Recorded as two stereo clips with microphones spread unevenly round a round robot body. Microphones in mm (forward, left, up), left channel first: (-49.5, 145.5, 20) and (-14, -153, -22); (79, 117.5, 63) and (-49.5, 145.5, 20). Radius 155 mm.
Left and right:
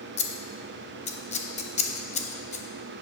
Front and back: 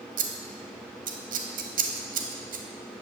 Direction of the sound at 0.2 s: 170° left.